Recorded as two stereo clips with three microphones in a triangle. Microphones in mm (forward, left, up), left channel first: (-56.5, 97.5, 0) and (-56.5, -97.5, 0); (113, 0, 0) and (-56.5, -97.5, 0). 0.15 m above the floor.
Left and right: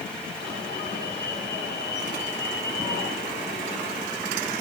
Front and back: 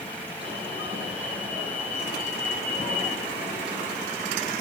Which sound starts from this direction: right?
An alarm, at 0.4 s.